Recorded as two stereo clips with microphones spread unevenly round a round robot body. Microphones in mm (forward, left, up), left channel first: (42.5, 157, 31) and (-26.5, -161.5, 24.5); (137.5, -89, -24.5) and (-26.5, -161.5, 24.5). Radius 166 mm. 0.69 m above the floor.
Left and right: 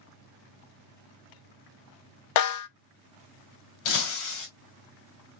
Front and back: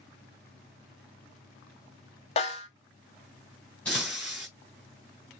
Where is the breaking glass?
110° left, 2.5 m.